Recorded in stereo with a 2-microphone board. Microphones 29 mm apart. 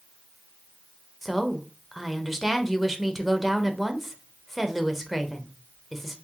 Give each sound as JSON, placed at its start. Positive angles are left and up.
{"t": 1.2, "sound": "a woman speaking", "side_deg": 0, "distance_m": 0.7}